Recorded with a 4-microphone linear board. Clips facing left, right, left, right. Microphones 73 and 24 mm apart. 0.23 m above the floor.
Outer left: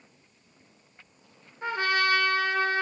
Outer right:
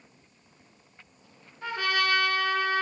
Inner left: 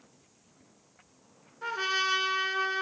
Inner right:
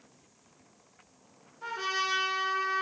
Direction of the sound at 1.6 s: 25° left (ahead or behind).